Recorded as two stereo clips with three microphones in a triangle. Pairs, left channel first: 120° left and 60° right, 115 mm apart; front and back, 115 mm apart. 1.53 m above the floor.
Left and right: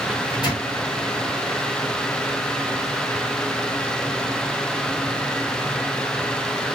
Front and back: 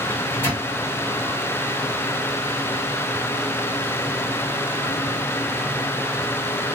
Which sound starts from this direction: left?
A microwave, at 0.1 s.